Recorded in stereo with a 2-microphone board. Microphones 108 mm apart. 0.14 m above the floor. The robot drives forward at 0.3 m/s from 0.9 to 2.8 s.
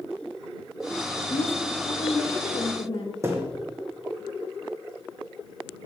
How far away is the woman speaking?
About 4 m.